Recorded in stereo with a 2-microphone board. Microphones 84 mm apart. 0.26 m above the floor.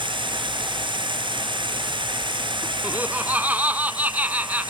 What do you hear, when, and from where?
0.0 s running water: 75° right (ahead or behind)
2.8 s laughter: 20° right (ahead or behind)